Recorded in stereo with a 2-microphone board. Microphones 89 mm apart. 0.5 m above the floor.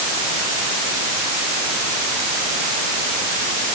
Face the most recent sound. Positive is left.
No sound to turn to.